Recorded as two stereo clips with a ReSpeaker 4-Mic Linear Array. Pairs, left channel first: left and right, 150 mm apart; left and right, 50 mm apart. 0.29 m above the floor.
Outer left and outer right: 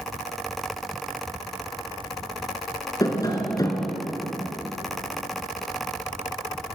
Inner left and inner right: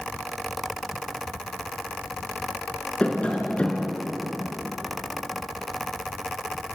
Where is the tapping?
25° left (ahead or behind), 3.5 m.